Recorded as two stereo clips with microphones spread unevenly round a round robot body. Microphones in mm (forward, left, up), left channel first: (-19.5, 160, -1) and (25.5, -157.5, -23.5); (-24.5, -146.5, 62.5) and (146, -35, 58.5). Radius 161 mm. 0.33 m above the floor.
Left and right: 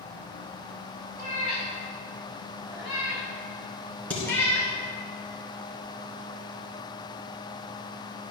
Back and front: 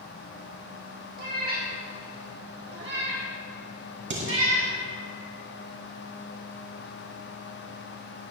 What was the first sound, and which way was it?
A cat meowing, 15° right.